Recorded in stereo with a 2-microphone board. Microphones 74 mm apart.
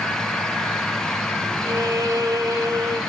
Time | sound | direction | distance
1.6 | a violin | 55° right (ahead or behind) | 1.0 m